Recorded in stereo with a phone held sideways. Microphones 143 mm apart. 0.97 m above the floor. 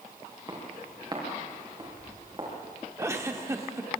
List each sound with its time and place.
0.5 s footsteps: 25° right (ahead or behind), 7 m; by 3.1 s 35° right (ahead or behind), 7.5 m
3.0 s a giggle: 20° right (ahead or behind), 1.4 m